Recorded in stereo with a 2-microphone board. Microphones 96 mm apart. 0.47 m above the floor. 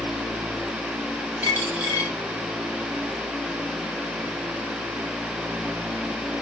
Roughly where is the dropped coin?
Right.